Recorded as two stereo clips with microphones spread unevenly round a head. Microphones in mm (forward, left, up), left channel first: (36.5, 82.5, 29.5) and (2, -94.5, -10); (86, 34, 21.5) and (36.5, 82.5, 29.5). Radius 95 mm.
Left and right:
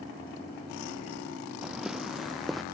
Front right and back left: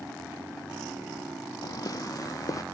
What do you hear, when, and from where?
1.6 s footsteps: 15° right; by 2.6 s 10° right